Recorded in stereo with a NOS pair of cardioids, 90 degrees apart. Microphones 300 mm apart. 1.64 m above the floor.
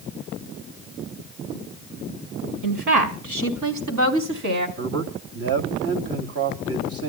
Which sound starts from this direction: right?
A woman speaking, at 2.6 s.